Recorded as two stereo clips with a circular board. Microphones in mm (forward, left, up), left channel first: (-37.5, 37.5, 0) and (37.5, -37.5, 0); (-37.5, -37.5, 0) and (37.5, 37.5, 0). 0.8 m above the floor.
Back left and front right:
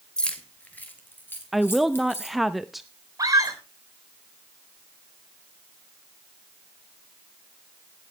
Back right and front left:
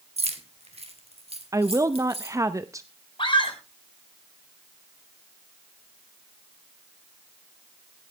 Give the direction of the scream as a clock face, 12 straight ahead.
3 o'clock.